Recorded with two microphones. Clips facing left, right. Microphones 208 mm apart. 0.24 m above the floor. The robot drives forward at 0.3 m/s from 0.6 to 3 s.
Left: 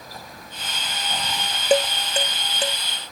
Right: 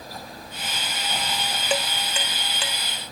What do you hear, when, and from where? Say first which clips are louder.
1.7 s dishes clattering: left 9 dB; 40° left (ahead or behind)